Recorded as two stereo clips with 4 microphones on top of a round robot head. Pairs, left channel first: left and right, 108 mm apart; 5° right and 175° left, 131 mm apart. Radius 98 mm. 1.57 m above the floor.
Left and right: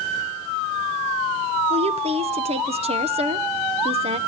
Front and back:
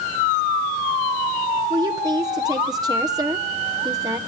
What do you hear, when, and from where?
1.7 s a woman speaking: 115° right, 1.0 m